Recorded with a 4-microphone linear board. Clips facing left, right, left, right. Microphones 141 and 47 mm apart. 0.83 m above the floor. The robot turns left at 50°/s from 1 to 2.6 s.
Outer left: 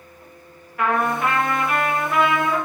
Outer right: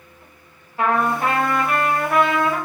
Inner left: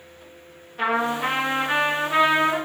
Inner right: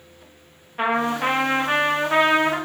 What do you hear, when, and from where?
0.8 s a trumpet: 35° right, 0.8 m; by 2.6 s 110° right, 0.8 m